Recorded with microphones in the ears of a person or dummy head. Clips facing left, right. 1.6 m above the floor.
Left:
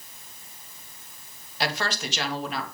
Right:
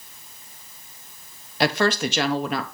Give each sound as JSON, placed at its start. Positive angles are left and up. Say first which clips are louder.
{"t": 1.6, "sound": "a woman speaking", "louder": "right 9 dB", "side_deg": -55, "distance_m": 1.0}